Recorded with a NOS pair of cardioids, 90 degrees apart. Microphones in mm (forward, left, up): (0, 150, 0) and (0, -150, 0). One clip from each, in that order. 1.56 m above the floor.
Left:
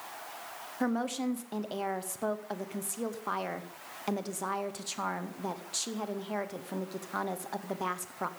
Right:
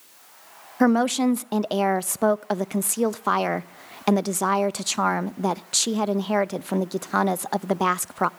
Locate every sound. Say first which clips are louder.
0.8 s a woman speaking: right 12 dB; 55° right, 0.5 m